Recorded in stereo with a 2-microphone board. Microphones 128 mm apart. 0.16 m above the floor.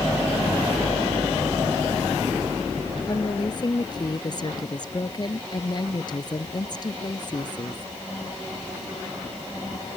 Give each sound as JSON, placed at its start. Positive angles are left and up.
{"t": 3.1, "sound": "a woman speaking", "side_deg": 35}